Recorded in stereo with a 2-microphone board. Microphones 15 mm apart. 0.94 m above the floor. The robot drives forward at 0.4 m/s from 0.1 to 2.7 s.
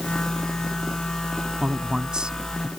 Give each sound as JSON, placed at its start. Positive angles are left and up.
{"t": 1.6, "sound": "a man speaking", "side_deg": -60}